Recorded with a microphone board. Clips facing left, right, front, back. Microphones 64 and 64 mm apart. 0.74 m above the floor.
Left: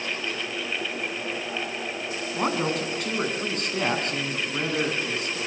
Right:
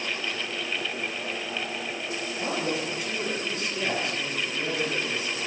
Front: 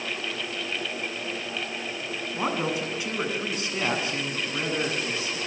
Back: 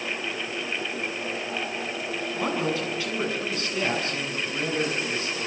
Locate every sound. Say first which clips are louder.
2.3 s a man speaking: left 4 dB, even; 70° left, 8.5 m